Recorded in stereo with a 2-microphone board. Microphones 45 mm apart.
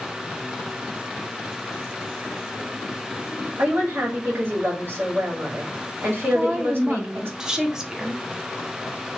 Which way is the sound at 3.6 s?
55° right (ahead or behind).